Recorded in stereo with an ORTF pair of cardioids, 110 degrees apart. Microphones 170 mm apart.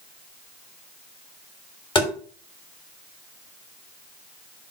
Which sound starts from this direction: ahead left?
Tapping, at 1.9 s.